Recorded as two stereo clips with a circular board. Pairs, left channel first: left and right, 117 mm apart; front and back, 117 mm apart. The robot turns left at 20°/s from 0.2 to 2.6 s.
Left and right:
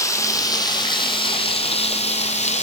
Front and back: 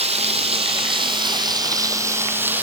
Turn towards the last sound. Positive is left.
turn(degrees=105)